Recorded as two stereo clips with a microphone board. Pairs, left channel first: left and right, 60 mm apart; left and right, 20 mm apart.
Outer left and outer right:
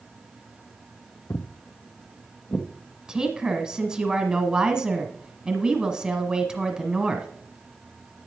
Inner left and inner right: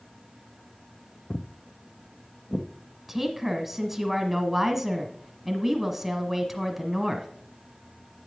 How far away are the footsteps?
About 0.5 m.